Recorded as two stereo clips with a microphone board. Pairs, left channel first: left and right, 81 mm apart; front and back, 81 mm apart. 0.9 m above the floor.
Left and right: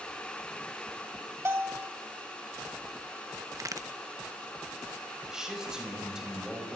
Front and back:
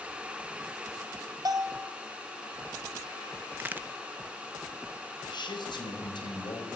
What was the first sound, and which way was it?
A bell, 145° right.